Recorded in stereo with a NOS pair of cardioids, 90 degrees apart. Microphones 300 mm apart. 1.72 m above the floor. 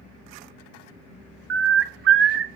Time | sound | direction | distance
1.5 | a bird | 45° right | 0.7 m